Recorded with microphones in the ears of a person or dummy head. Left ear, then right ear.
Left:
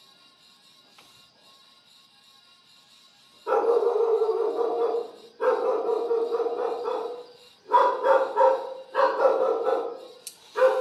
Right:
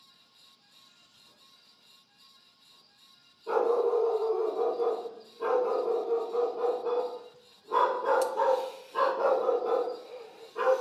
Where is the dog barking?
40° left (ahead or behind), 1.4 m.